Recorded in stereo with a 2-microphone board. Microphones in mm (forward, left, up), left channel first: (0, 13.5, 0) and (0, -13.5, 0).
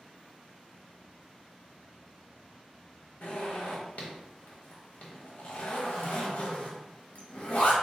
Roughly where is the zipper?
Left.